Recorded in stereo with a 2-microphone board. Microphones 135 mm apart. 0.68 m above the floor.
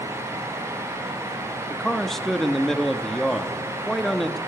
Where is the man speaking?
5° left (ahead or behind), 0.8 m.